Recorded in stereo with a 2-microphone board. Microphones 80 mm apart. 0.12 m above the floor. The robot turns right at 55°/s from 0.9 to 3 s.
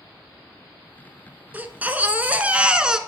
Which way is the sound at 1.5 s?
20° right (ahead or behind).